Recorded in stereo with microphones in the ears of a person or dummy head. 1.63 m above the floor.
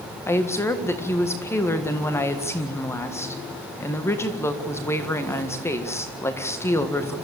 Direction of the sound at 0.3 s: 15° left (ahead or behind).